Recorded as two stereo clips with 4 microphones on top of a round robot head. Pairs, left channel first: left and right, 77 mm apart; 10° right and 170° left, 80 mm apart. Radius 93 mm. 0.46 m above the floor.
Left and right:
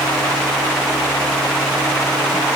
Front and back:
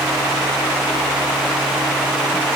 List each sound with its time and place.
Only background noise.